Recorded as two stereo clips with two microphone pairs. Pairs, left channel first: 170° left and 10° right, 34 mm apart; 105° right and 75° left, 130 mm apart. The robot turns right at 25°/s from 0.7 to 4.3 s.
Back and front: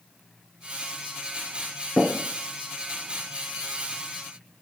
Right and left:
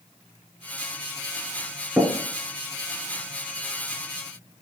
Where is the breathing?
I don't hear breathing.